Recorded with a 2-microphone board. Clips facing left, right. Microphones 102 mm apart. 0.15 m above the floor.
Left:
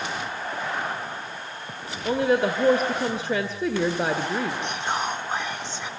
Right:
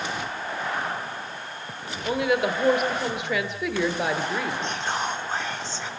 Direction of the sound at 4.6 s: 15° left (ahead or behind).